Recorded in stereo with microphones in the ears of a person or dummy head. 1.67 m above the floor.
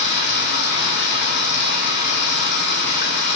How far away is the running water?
About 1.2 m.